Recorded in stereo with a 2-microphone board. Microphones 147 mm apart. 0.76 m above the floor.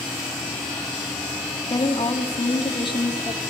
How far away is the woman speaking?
About 1.5 m.